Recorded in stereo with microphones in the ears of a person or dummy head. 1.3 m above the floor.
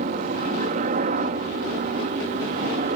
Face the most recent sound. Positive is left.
turn(degrees=-40)  # may be behind; listen again after turning